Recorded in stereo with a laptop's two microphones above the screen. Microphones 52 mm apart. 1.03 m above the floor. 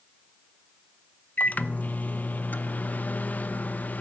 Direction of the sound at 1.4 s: 30° left (ahead or behind).